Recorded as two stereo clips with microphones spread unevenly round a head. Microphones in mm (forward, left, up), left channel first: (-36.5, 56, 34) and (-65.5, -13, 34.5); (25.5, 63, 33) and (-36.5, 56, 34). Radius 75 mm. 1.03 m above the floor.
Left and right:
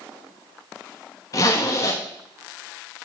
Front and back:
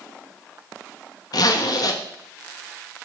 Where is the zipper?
15° left, 1.4 m.